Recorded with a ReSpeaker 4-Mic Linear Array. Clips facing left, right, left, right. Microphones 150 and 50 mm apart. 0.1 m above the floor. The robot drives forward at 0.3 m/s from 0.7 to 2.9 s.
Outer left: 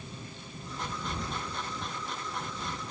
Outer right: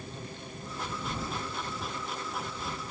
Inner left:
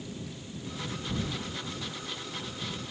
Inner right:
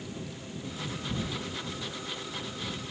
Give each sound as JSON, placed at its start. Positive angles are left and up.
{"t": 1.1, "sound": "keys jangling", "side_deg": 0, "distance_m": 1.3}